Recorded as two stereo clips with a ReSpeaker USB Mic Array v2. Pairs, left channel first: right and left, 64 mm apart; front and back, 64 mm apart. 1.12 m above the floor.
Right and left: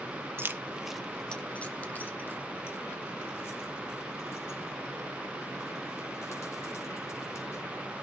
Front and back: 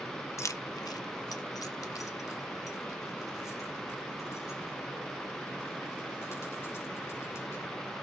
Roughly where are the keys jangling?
Ahead left.